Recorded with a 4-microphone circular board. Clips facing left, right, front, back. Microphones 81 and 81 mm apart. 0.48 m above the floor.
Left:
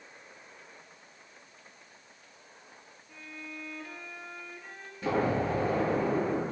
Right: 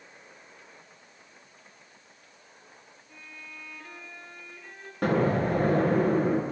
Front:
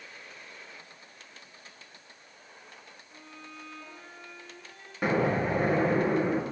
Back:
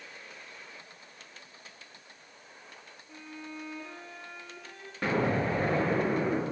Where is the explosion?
80° right, 9 m.